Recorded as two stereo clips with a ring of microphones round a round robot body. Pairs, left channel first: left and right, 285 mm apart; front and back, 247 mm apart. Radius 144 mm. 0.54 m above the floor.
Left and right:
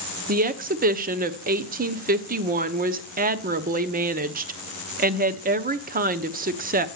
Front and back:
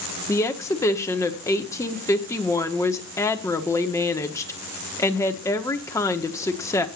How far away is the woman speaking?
About 0.9 m.